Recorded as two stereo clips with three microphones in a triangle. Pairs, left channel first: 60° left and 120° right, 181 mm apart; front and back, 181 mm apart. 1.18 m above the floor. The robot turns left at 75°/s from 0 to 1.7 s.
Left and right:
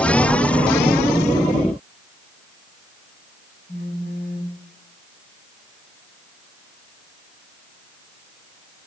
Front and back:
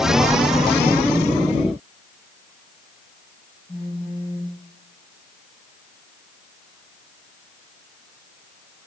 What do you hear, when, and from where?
3.7 s a phone buzzing: 55° left, 7.5 m